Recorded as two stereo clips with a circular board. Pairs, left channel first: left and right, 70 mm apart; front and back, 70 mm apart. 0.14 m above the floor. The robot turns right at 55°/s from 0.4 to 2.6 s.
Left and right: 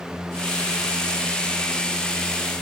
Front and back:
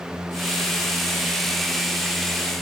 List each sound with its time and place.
Only background noise.